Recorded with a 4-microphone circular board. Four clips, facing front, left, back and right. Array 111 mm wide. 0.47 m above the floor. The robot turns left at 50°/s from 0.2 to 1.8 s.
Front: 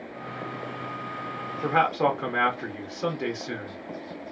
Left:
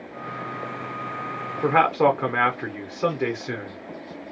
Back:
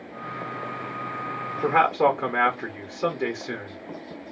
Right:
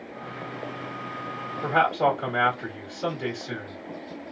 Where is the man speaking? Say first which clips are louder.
Left 3 dB, back 3 dB; 110° left, 1.2 m; by 3.8 s 105° left, 1.2 m.